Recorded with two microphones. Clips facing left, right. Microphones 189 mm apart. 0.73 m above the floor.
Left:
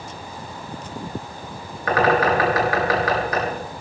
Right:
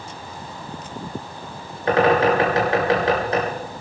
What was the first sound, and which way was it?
A bird, 30° right (ahead or behind).